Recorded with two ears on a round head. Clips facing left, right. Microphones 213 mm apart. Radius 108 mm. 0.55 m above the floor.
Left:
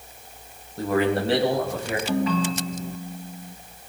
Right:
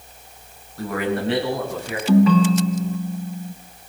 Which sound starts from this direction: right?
A ringtone, at 2.1 s.